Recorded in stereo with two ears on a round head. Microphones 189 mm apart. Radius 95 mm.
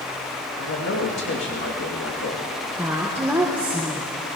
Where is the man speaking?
60° left (ahead or behind), 2.5 m.